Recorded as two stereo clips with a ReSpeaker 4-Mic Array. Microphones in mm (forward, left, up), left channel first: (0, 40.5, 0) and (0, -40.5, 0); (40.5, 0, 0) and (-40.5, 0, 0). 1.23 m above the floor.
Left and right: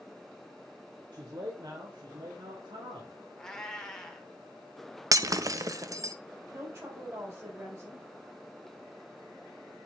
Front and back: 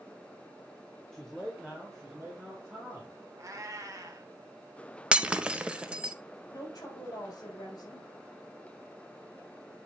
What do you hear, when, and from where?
1.1 s a man speaking: 85° right, 1.2 m; by 3.1 s 95° right, 2.5 m
3.4 s a cat meowing: 170° left, 1.1 m
5.1 s breaking glass: 110° right, 0.5 m
6.5 s a woman speaking: 40° right, 4 m